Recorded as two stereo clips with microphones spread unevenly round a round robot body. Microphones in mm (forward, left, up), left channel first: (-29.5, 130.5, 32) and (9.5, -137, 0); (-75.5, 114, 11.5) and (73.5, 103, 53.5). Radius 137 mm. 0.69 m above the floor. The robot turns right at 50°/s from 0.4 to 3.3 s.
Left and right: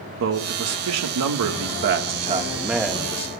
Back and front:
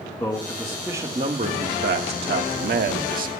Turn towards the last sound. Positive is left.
turn(degrees=30)